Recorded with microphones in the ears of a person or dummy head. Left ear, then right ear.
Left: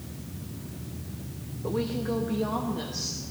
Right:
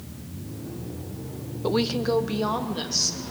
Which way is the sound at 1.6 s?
70° right (ahead or behind).